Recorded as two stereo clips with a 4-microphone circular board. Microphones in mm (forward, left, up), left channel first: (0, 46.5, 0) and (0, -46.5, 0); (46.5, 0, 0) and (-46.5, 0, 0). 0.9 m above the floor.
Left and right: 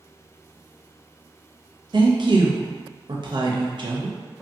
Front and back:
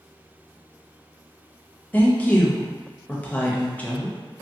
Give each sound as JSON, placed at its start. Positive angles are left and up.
{"t": 1.9, "sound": "a woman speaking", "azimuth_deg": -70, "distance_m": 0.6}